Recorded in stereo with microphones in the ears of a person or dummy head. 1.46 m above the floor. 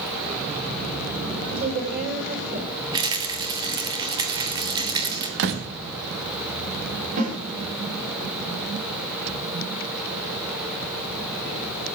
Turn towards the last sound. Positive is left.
turn(degrees=-50)  # may be behind; listen again after turning